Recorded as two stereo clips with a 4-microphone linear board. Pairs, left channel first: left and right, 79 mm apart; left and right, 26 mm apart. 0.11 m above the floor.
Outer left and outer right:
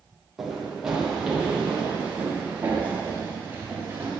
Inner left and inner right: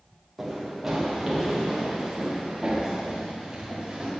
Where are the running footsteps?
5° right (ahead or behind), 4 m; by 4.1 s 25° right (ahead or behind), 5 m.